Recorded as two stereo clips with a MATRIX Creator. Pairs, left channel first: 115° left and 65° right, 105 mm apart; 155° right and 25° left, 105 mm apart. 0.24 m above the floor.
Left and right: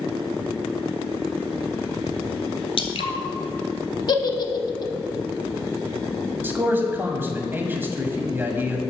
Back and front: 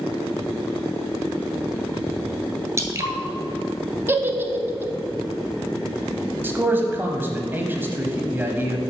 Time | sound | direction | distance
2.8 | dripping | 85° left | 0.8 m
4.1 | a giggle | 85° left | 0.6 m
6.4 | a man speaking | 20° right | 1.0 m